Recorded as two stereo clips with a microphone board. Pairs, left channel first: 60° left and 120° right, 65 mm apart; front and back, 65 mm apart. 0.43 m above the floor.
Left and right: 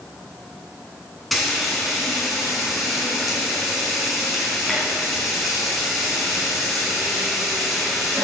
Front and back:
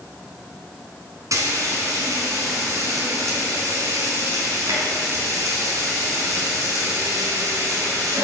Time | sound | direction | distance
1.3 | frying | 150° left | 5 m